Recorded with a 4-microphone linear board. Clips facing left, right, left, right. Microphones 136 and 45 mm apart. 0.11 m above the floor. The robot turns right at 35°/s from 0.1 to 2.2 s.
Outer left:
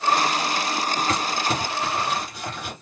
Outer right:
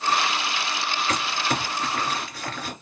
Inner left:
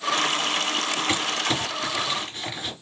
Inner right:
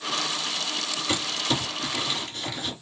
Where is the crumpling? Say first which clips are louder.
Outer left 2 dB, inner right 1 dB; 30° left (ahead or behind), 1.6 m; by 2.7 s 15° left (ahead or behind), 1.6 m.